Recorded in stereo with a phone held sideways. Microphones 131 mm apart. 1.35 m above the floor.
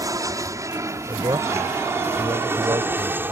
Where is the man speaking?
35° right (ahead or behind).